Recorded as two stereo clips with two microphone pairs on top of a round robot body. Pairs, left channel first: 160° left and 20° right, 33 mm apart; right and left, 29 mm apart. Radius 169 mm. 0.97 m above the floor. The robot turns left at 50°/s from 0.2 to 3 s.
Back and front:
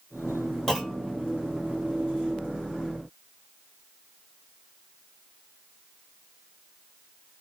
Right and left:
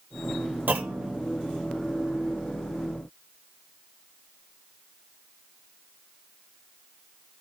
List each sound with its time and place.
0.7 s a clunk: 85° left, 0.6 m; by 1.2 s 60° left, 0.6 m